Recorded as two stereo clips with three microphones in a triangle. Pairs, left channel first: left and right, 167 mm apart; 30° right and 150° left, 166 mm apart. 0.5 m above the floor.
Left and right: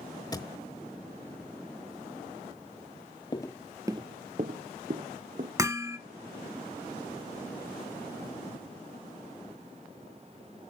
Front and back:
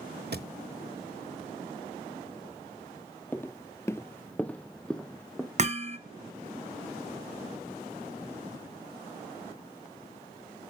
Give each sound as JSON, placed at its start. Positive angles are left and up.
{"t": 0.3, "sound": "a thud", "azimuth_deg": 155, "distance_m": 1.0}
{"t": 3.3, "sound": "footsteps", "azimuth_deg": 40, "distance_m": 0.6}
{"t": 5.6, "sound": "hammering", "azimuth_deg": -160, "distance_m": 1.1}